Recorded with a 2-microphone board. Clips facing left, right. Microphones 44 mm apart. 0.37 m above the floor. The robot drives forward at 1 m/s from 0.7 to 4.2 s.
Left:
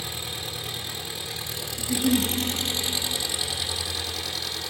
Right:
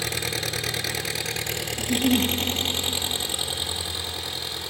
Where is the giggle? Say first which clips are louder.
Right 1 dB; 25° right (ahead or behind), 1.7 m; by 2.3 s 30° right (ahead or behind), 1.4 m.